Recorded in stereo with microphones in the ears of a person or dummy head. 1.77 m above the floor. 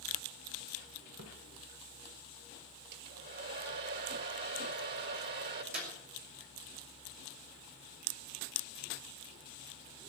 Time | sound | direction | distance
1.2 | a splash | 50° right (ahead or behind) | 1.8 m
2.9 | a hair dryer | 60° right (ahead or behind) | 2 m
5.7 | a clap | 45° right (ahead or behind) | 4 m